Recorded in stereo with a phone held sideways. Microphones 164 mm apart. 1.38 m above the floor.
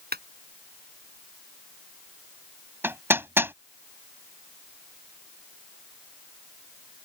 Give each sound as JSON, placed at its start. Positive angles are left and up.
{"t": 0.1, "sound": "a clap", "side_deg": -70}
{"t": 2.8, "sound": "hammering", "side_deg": -15}